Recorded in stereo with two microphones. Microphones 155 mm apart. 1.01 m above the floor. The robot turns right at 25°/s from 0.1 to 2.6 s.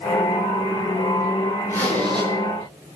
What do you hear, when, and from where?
1.7 s a zipper: 20° right (ahead or behind), 7.5 m; by 2.3 s 35° right (ahead or behind), 7.5 m